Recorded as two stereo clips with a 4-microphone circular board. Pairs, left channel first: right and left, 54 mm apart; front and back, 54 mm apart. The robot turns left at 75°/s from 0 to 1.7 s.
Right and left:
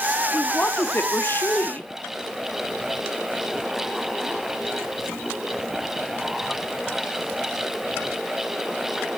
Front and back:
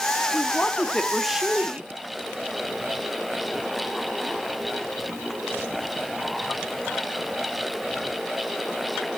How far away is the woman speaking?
About 1.3 m.